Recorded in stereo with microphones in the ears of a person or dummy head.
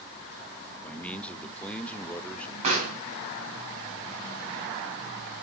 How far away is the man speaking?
About 0.6 m.